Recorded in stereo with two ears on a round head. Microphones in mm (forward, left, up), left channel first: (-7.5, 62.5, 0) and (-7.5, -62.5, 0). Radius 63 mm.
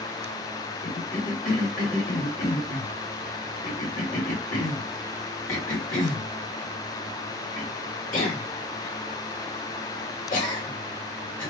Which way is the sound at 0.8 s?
65° left (ahead or behind).